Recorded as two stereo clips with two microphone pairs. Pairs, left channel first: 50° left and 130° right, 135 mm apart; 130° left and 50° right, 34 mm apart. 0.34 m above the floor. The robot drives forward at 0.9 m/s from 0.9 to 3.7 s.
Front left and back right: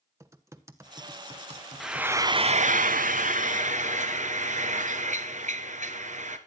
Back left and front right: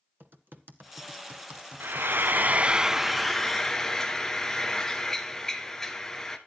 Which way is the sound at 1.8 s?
40° right.